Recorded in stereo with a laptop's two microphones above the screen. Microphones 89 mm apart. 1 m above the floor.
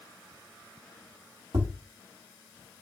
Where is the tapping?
75° right (ahead or behind), 3 m.